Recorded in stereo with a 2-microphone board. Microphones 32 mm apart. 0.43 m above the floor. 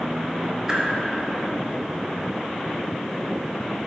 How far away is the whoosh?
About 0.6 m.